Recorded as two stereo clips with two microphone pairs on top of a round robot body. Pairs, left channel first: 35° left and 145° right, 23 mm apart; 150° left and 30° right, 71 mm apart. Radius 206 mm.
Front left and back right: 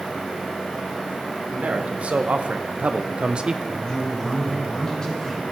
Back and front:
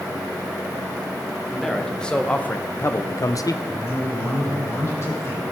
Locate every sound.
1.5 s a man speaking: 120° right, 1.8 m; by 3.6 s 165° left, 1.1 m
3.7 s a man speaking: 100° left, 4 m